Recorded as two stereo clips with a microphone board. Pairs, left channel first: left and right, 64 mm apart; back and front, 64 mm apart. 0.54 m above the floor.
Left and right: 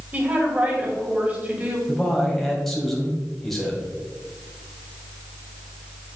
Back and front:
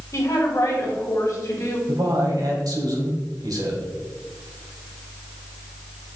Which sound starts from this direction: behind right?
A woman speaking, at 0.1 s.